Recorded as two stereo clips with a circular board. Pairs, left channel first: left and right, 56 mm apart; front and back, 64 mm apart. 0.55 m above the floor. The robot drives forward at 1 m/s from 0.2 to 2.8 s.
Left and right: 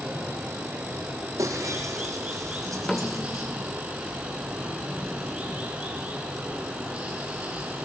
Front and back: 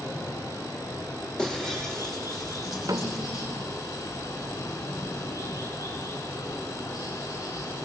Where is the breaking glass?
80° right, 5.5 m; by 3.5 s 95° right, 5.5 m.